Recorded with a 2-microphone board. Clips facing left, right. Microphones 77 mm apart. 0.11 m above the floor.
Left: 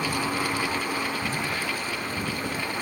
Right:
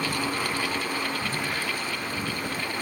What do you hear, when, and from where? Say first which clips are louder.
1.2 s a crack: left 1 dB; 30° right (ahead or behind), 5 m